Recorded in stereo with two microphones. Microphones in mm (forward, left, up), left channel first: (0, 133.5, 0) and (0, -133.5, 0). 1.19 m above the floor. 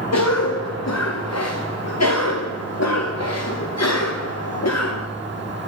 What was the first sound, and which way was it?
A cough, 70° left (ahead or behind).